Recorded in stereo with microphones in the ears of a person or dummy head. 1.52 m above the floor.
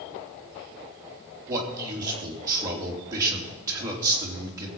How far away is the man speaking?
About 3 m.